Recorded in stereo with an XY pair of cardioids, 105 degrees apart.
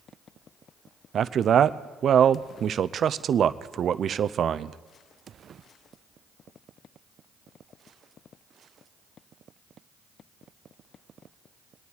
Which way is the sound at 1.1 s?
55° right.